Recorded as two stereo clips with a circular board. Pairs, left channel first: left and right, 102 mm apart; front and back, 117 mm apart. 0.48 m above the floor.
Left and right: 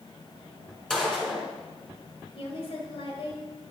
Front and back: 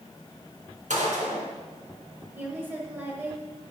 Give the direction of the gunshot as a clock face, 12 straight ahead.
6 o'clock.